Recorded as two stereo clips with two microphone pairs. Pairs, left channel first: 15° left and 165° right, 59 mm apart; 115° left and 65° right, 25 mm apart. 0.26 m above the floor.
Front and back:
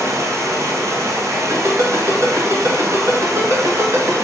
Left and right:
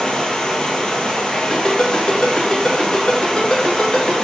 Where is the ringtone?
165° left, 1.4 m.